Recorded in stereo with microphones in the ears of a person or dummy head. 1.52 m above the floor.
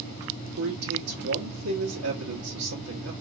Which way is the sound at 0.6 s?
75° right (ahead or behind).